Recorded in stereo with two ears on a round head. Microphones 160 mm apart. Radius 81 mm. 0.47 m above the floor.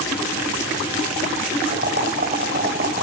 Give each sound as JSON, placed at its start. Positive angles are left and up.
{"t": 1.7, "sound": "boiling", "side_deg": -50, "distance_m": 2.0}